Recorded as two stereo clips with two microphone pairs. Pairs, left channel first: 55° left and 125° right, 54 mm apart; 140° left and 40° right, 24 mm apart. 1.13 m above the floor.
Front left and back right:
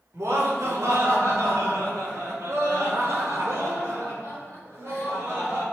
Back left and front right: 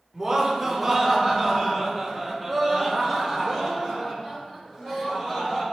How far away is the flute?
No flute in this recording.